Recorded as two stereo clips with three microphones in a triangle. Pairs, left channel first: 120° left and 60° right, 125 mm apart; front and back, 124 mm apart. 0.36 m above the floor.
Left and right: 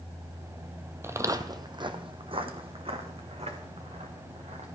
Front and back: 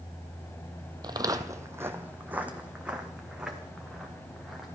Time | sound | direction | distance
1.0 | footsteps | 130° right | 0.7 m